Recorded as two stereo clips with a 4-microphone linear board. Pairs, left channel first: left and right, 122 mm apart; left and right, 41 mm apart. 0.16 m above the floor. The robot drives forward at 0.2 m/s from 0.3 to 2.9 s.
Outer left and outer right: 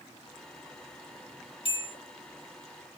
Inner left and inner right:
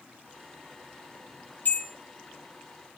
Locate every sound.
1.6 s a bell: 50° left (ahead or behind), 2.5 m